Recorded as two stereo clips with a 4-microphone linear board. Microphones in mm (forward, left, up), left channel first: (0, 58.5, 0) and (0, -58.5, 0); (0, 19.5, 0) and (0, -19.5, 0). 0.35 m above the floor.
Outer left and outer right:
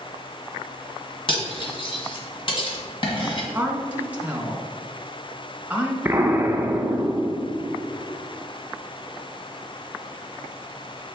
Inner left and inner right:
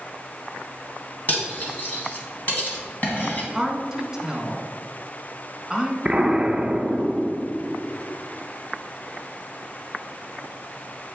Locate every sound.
1.3 s cutlery clinking: 45° left (ahead or behind), 1.5 m
3.5 s a woman speaking: 10° right (ahead or behind), 1.6 m
6.0 s an explosion: 15° right (ahead or behind), 0.8 m